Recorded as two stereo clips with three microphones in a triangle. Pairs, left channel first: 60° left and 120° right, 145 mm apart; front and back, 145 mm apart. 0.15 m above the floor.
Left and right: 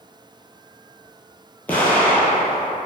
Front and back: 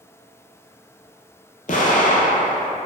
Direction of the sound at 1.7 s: 20° right.